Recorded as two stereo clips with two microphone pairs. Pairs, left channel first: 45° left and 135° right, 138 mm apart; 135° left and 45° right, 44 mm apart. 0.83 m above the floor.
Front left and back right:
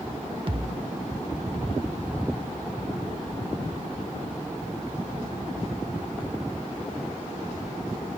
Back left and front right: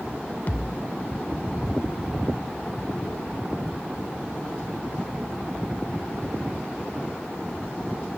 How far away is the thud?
About 0.7 m.